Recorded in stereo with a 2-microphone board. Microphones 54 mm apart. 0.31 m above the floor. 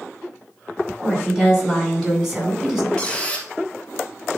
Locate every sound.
1.0 s a woman speaking: 15° right (ahead or behind), 4.5 m; by 2.9 s 10° right (ahead or behind), 2.5 m
3.0 s a squeak: 15° left (ahead or behind), 2 m